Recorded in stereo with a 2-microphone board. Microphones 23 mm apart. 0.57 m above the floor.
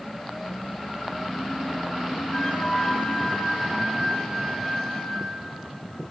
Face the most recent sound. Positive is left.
turn(degrees=45)  # may be behind; listen again after turning